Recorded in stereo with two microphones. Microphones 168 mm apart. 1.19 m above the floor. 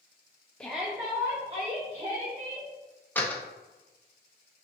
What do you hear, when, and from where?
0.6 s a shout: 5° left (ahead or behind), 0.6 m; by 2.7 s 40° right (ahead or behind), 1.9 m
3.1 s a door slam: 10° left (ahead or behind), 0.7 m